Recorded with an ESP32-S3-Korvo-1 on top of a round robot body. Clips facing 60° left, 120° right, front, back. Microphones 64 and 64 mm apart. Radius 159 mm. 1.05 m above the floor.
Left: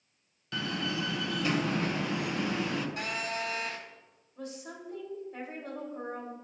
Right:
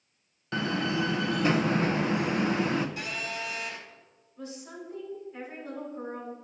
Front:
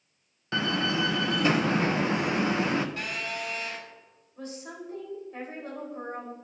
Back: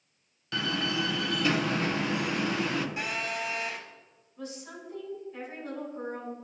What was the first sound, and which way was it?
A door slam, 60° right.